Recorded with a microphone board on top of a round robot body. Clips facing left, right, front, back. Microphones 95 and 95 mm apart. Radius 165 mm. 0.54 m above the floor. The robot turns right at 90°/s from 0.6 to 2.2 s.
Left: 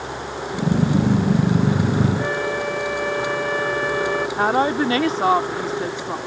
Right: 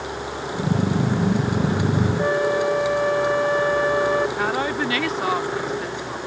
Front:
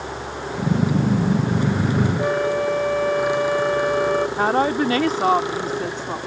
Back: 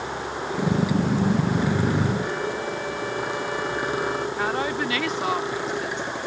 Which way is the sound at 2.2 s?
30° right.